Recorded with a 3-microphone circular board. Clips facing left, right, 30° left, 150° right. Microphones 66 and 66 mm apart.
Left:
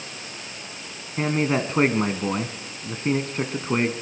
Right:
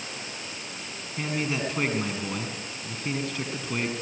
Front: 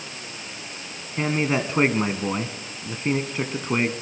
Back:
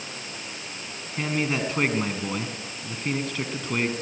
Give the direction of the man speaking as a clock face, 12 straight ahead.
9 o'clock.